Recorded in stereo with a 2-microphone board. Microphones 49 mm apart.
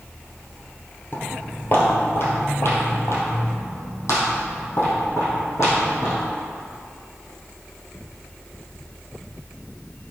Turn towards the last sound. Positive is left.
turn(degrees=75)  # may be behind; listen again after turning